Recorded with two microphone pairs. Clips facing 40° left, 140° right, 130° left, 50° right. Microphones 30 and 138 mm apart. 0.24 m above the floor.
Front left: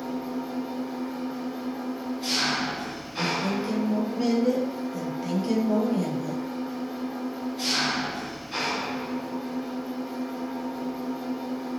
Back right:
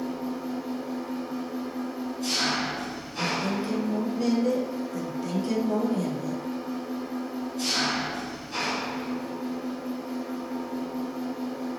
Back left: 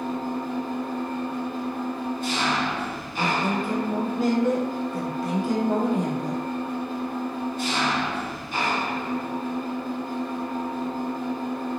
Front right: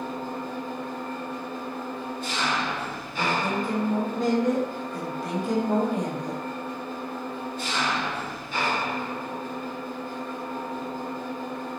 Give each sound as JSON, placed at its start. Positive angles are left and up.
{"t": 0.0, "sound": "an engine running", "azimuth_deg": 100, "distance_m": 1.7}
{"t": 3.1, "sound": "a woman speaking", "azimuth_deg": 45, "distance_m": 1.0}